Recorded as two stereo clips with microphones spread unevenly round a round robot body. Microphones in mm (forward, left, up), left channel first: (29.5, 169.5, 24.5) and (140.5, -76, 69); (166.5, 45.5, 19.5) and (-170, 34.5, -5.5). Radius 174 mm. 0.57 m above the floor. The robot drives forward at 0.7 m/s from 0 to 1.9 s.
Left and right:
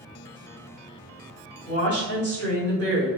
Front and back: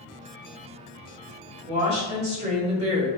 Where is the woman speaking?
155° right, 1.8 m.